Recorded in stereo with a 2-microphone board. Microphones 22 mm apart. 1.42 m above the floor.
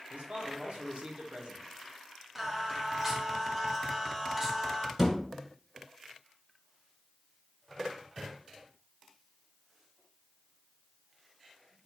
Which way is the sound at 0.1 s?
75° right (ahead or behind).